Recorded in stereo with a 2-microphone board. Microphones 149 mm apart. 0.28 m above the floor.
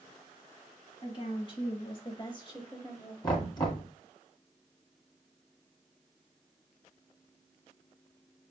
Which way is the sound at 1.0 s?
35° left (ahead or behind).